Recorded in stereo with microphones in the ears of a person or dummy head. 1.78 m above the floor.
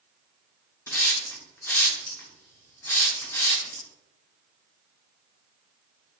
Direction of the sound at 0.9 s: 15° left (ahead or behind).